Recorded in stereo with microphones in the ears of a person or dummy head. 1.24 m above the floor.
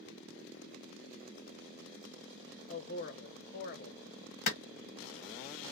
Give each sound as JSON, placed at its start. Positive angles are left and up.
{"t": 2.7, "sound": "a man speaking", "side_deg": 45, "distance_m": 0.7}
{"t": 4.5, "sound": "a clap", "side_deg": 50, "distance_m": 1.0}